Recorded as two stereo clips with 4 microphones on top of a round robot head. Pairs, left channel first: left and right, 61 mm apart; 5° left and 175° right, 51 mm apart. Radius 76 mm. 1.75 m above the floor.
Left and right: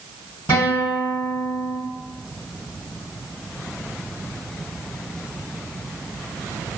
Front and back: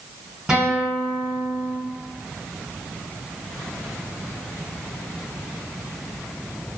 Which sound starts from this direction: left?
A guitar, at 0.5 s.